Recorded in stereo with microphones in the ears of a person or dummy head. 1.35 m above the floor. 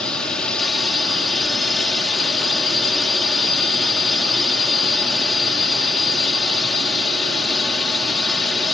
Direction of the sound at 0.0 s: 5° left (ahead or behind).